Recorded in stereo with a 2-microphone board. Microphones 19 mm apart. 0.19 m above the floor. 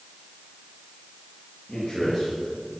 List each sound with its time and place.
1.7 s a man speaking: centre (ahead or behind), 4 m; by 2.8 s 10° right (ahead or behind), 3.5 m